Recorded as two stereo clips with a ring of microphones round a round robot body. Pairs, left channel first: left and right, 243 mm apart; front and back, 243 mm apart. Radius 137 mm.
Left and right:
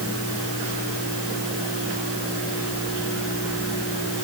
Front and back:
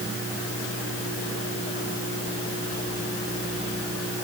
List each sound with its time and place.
Only background noise.